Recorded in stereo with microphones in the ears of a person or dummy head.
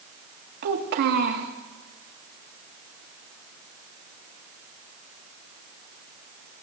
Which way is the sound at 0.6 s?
45° right (ahead or behind).